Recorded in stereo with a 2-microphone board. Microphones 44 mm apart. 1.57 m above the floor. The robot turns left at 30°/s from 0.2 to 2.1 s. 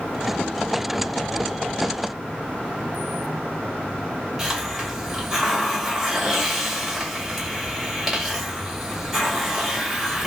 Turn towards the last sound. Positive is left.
turn(degrees=-5)  # may be behind; listen again after turning